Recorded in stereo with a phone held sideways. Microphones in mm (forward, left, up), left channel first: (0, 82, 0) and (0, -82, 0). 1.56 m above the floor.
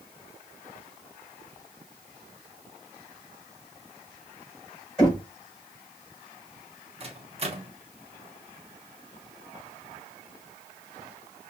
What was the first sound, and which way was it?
Knocking, 5° left (ahead or behind).